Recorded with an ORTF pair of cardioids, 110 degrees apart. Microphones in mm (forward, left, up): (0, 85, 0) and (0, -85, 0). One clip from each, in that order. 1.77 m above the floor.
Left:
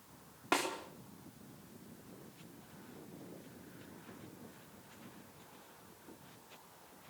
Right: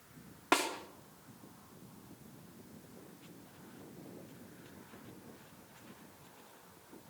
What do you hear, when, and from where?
0.5 s a snare drum: 20° right, 4.5 m